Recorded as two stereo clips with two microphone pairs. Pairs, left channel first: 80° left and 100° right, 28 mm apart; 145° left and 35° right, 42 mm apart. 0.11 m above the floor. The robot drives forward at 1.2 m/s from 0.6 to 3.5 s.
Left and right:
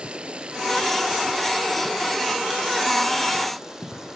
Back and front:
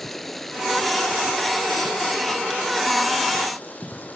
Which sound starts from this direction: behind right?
Running water, at 0.0 s.